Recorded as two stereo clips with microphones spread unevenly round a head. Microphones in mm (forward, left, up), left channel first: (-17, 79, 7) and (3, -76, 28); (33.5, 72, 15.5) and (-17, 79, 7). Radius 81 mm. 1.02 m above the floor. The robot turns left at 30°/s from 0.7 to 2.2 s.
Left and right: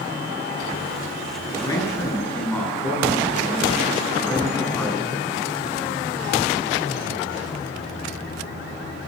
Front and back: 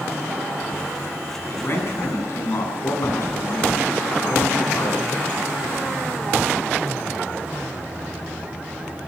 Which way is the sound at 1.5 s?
35° left.